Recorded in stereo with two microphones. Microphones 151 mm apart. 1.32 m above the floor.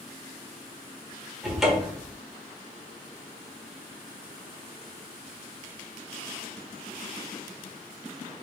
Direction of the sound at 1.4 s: Centre (ahead or behind).